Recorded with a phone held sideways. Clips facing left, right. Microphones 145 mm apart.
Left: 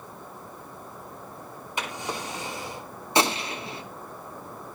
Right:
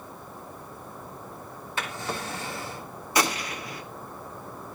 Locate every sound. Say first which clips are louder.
1.8 s a drawer: even; 20° left (ahead or behind), 2.5 m
3.1 s a gunshot: left 2 dB; 25° left (ahead or behind), 1.3 m